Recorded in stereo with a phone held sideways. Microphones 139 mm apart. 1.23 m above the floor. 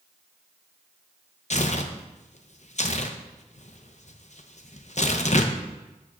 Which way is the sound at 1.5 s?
55° left (ahead or behind).